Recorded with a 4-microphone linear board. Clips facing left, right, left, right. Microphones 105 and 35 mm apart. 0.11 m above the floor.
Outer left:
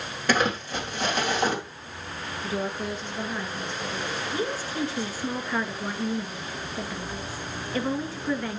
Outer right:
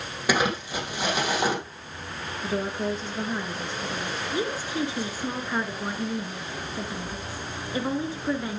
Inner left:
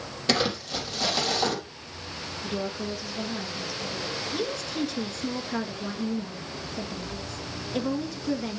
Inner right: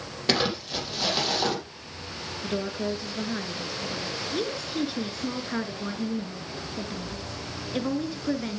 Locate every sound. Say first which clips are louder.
0.3 s crumpling: even, even; 10° right (ahead or behind), 3.5 m
2.4 s a woman speaking: outer right 2 dB, inner right 2 dB; 35° right (ahead or behind), 1.9 m
4.3 s a woman speaking: outer right 2 dB, inner right 2 dB; 15° right (ahead or behind), 1.3 m